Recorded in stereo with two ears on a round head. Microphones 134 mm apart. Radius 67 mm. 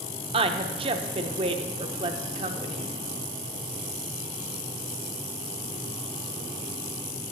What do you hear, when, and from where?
0.3 s a woman speaking: 40° right (ahead or behind), 0.6 m